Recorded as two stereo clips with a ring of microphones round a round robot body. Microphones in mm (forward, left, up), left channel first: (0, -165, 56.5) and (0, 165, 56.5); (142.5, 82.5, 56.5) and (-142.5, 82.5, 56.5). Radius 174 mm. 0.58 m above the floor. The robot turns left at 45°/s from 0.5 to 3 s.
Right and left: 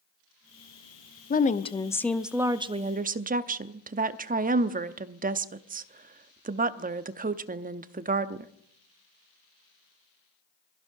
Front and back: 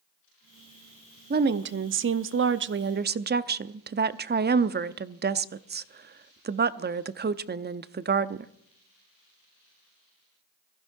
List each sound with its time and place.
1.3 s a woman speaking: 140° right, 0.8 m; by 8.5 s 145° left, 0.8 m